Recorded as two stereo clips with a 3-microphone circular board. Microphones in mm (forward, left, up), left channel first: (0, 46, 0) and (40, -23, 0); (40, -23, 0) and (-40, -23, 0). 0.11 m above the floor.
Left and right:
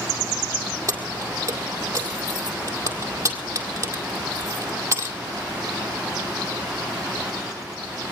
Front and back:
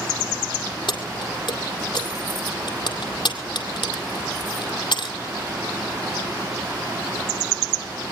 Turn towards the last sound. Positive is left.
turn(degrees=-10)